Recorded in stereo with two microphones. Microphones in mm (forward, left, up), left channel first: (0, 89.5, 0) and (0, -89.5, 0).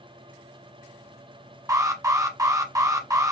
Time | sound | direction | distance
1.7 | an alarm | 20° right (ahead or behind) | 1.1 m